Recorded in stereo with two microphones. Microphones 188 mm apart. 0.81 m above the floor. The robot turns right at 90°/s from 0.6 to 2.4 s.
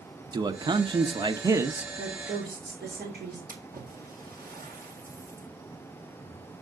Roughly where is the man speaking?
Right.